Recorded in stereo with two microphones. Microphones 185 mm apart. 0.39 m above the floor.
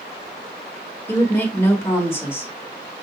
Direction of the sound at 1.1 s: 15° left (ahead or behind).